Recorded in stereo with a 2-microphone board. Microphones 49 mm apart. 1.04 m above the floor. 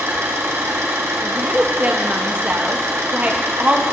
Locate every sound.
0.0 s an engine running: 80° right, 1.8 m
1.2 s a woman speaking: 35° right (ahead or behind), 1.3 m